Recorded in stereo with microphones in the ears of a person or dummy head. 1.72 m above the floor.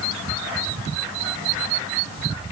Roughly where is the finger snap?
No finger snap in this recording.